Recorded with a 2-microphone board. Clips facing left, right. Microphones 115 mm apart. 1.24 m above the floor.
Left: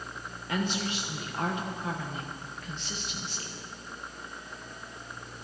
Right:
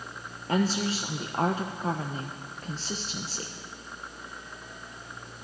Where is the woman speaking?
35° right (ahead or behind), 1.0 m.